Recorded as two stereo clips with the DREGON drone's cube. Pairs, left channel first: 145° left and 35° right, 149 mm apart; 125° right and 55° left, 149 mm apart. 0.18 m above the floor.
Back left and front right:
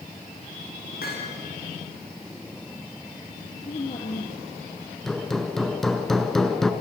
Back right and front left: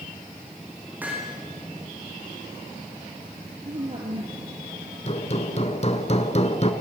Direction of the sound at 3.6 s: 105° left.